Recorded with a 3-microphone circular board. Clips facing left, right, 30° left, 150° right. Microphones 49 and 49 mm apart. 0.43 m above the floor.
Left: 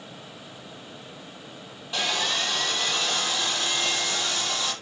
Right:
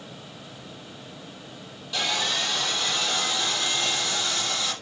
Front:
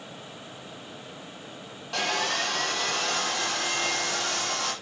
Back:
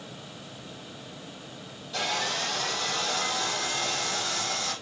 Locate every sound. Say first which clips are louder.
1.9 s sawing: even, front 2 dB; 25° left, 8 m